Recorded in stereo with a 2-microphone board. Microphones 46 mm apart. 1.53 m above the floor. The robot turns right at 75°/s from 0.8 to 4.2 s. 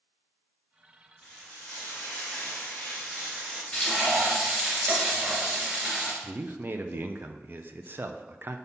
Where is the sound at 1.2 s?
20° left, 3.5 m; by 3.6 s 160° right, 3.5 m.